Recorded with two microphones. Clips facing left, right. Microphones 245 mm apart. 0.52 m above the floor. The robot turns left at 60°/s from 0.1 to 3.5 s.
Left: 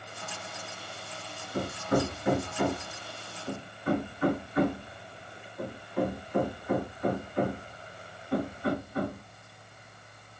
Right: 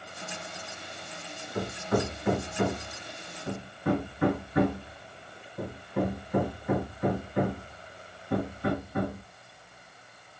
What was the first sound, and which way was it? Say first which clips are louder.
Hammering: left 1 dB; 55° left (ahead or behind).